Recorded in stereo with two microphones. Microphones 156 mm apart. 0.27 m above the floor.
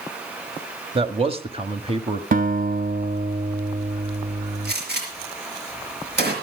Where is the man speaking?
35° right (ahead or behind), 1.1 m.